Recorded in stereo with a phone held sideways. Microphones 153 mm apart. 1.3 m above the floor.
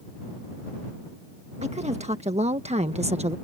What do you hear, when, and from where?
1.6 s a woman speaking: 45° right (ahead or behind)